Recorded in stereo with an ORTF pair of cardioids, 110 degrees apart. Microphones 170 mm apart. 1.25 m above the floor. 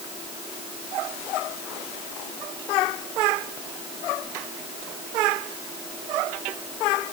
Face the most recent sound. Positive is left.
No sound to turn to.